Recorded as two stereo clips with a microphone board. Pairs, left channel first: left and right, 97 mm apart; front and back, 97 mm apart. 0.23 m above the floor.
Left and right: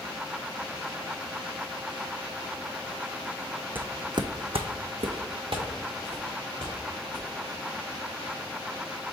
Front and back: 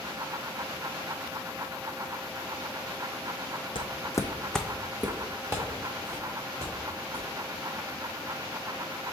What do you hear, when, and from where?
3.8 s footsteps: 20° right, 0.5 m; by 7.3 s 130° right, 2 m